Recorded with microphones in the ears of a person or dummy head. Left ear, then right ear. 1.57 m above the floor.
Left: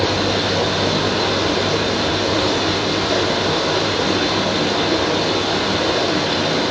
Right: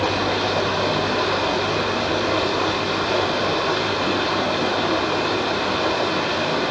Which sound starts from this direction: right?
Running water, at 0.0 s.